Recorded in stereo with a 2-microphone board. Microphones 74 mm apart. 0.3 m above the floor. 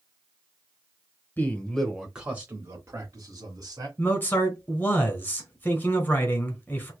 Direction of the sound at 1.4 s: 25° left (ahead or behind).